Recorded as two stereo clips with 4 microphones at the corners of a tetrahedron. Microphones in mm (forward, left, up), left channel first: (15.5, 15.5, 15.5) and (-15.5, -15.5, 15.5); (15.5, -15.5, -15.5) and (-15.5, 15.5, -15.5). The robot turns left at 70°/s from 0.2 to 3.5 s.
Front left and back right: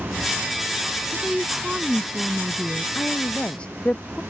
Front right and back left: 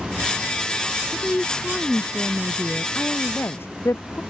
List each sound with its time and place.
1.1 s a woman speaking: 55° right; by 2.9 s 175° right
3.0 s a woman speaking: 20° left; by 4.2 s 20° right